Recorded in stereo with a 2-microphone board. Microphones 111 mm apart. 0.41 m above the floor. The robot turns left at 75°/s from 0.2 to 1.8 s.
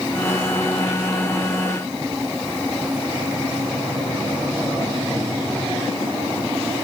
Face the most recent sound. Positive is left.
No sound to turn to.